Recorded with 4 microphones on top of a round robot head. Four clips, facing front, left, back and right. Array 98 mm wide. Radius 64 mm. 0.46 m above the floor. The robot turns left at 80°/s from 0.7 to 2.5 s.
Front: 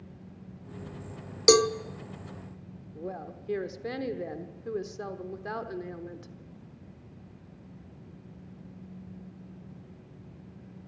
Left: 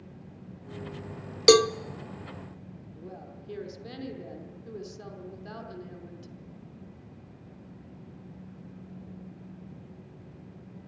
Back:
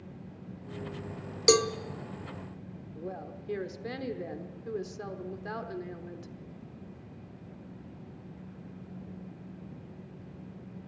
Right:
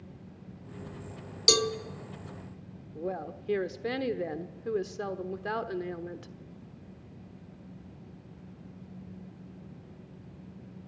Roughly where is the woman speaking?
Right.